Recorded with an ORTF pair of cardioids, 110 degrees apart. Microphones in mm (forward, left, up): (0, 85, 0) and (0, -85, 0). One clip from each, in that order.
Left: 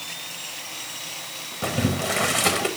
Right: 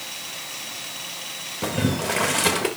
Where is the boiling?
5° right, 1.0 m.